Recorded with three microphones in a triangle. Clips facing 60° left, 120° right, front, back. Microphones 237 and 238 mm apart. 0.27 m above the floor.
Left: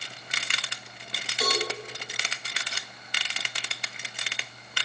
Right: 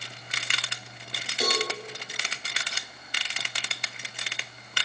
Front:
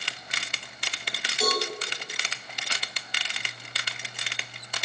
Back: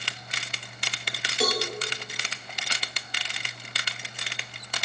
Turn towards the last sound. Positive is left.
turn(degrees=-175)